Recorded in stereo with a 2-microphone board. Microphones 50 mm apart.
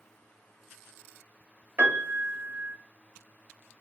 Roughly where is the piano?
Right.